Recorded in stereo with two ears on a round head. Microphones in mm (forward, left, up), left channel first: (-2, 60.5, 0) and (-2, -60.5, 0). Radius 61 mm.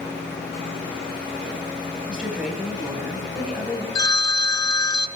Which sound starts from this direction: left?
A phone ringing, at 4.0 s.